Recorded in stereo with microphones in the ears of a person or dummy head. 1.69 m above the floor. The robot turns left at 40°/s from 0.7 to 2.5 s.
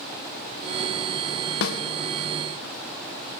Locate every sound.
1.6 s a snare drum: 55° left (ahead or behind), 1.2 m